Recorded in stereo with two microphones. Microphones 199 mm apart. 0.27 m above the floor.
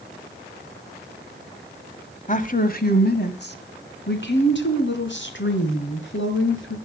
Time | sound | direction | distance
2.3 | a woman speaking | 40° left (ahead or behind) | 1.3 m